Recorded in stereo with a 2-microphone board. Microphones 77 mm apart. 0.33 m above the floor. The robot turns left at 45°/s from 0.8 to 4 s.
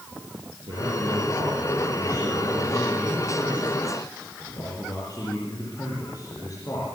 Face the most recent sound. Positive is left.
turn(degrees=130)